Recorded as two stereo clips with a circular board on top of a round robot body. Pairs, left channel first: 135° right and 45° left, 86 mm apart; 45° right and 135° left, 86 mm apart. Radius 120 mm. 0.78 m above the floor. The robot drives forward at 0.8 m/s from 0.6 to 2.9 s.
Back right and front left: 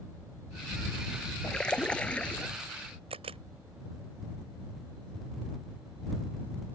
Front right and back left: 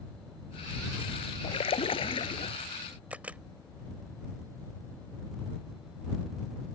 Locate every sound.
1.4 s a splash: 55° right; by 2.5 s 60° right
3.1 s a camera shutter: 60° left